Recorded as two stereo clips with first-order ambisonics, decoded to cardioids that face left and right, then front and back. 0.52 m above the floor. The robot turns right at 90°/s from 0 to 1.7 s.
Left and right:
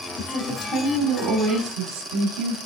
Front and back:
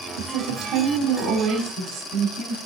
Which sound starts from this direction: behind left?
A woman speaking, at 0.2 s.